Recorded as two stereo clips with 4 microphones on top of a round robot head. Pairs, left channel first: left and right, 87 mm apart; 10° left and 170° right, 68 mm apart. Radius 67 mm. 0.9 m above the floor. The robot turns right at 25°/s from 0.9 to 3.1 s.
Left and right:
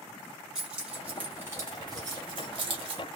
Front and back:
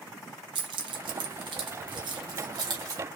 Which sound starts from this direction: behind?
Keys jangling, at 0.6 s.